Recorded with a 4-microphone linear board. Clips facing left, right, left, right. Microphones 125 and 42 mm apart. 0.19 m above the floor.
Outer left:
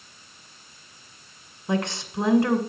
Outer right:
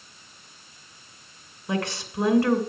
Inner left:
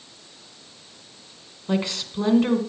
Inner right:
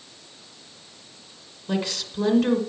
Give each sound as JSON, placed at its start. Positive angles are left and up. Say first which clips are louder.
{"t": 1.7, "sound": "a woman speaking", "louder": "outer left 2 dB, inner left 2 dB", "side_deg": 20, "distance_m": 1.7}